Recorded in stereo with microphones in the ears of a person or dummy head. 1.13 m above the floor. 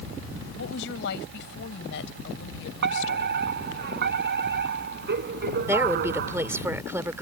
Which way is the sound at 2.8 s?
55° right (ahead or behind).